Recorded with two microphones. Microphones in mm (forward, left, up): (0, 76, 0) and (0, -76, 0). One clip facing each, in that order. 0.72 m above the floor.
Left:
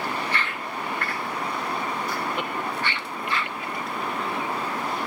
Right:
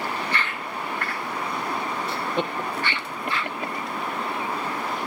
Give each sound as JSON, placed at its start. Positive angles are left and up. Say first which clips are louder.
{"t": 2.1, "sound": "laughter", "louder": "right 2 dB", "side_deg": -30}